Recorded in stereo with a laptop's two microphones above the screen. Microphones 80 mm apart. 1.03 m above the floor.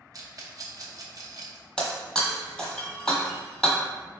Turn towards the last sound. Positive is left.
turn(degrees=10)  # may be behind; listen again after turning